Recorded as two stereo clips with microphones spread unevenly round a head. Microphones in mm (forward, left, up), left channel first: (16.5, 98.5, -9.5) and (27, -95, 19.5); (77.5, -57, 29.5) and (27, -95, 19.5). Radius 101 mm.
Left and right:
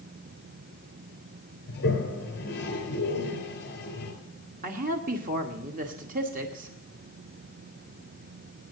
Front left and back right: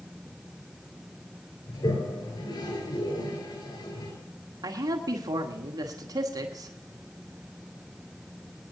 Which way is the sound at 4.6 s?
140° right.